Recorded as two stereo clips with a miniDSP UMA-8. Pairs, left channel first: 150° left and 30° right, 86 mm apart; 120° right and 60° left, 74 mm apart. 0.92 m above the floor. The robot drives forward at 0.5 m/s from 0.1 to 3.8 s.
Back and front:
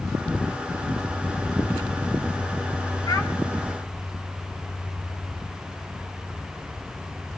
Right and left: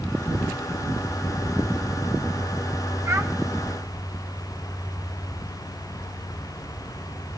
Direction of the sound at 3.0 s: 105° left.